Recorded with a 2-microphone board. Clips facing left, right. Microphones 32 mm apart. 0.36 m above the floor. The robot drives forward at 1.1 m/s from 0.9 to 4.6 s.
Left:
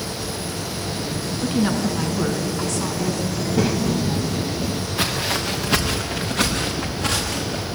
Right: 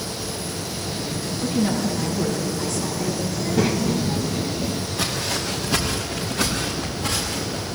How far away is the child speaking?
About 0.8 m.